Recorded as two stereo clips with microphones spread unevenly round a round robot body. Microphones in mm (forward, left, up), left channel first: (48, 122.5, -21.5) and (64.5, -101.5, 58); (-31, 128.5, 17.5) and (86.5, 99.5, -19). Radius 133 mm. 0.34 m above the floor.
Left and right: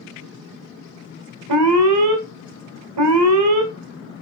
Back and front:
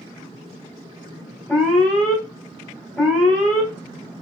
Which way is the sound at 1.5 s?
100° right.